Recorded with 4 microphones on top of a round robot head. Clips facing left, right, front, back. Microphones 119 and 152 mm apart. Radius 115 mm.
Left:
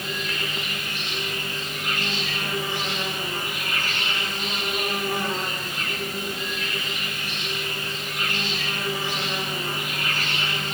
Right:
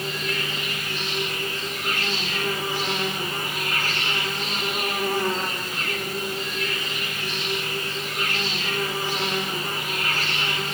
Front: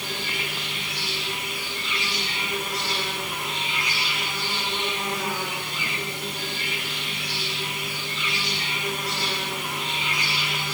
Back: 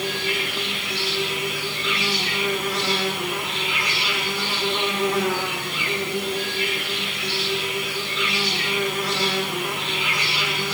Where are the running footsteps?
No running footsteps in this recording.